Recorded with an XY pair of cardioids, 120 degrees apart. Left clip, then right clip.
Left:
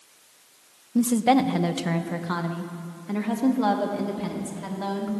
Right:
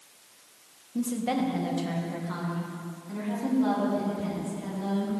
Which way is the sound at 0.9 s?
45° left.